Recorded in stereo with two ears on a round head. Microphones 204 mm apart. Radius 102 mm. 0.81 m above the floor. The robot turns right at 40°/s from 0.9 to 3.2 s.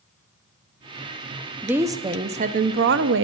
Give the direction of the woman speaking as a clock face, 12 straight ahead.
6 o'clock.